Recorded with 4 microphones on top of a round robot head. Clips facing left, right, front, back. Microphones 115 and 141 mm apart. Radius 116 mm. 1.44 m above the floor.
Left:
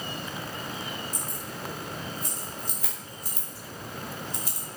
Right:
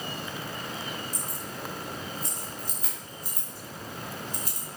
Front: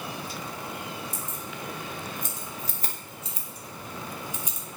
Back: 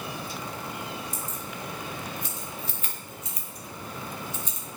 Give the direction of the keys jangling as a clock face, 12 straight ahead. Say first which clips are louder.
Even, back 1 dB; 11 o'clock.